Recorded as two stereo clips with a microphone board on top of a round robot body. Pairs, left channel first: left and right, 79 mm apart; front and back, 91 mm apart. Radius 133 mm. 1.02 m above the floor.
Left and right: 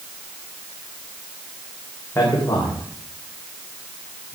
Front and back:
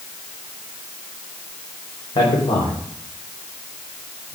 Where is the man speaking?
25° left, 4.5 m.